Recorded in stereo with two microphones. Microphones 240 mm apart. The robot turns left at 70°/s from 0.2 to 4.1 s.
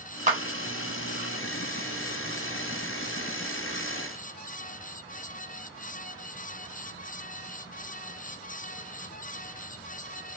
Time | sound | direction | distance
0.3 | a clap | 30° right (ahead or behind) | 1.0 m